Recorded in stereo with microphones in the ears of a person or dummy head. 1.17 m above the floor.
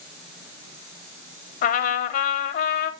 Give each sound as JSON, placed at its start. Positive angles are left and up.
{"t": 1.6, "sound": "a trumpet", "side_deg": 50, "distance_m": 1.0}